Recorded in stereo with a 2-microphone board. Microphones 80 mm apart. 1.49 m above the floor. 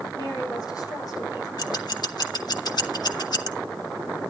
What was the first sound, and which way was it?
A woman speaking, 55° left (ahead or behind).